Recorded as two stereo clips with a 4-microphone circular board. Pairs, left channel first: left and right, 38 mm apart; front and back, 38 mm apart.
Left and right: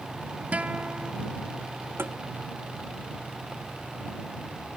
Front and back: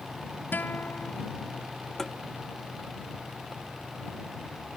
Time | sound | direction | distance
0.5 | a guitar | 35° right | ?
2.0 | tapping | 80° right | ?